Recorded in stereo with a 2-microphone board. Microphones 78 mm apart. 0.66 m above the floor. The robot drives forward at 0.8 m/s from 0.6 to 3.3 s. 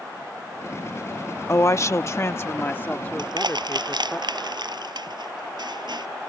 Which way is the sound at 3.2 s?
75° right (ahead or behind).